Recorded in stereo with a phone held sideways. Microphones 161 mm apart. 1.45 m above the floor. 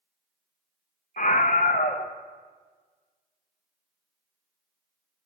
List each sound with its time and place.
1.2 s a scream: 55° left (ahead or behind), 0.8 m